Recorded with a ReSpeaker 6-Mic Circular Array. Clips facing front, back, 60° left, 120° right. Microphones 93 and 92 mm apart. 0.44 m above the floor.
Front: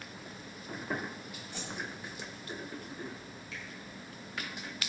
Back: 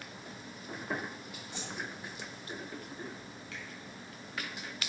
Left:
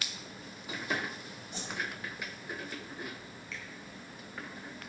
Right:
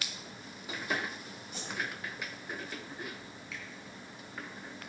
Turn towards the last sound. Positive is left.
turn(degrees=160)